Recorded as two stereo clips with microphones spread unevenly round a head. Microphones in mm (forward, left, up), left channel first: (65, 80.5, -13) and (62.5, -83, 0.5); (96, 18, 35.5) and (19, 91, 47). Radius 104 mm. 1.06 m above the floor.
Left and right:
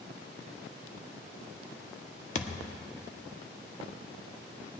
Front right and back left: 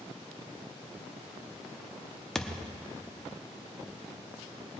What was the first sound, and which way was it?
A thud, 45° left.